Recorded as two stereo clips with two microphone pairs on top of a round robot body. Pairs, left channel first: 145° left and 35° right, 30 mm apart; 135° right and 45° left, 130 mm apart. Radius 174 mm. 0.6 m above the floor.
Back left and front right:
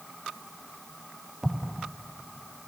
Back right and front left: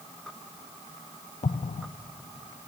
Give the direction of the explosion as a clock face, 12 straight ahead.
4 o'clock.